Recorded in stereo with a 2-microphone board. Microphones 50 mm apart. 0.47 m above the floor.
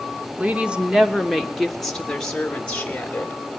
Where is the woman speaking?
25° right (ahead or behind), 1.2 m; by 3.4 s 25° left (ahead or behind), 1.9 m.